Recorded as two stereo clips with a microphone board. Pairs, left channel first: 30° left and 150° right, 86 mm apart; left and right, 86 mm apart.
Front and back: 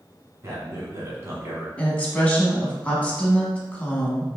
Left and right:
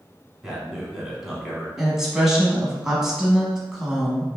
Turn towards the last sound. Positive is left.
turn(degrees=-15)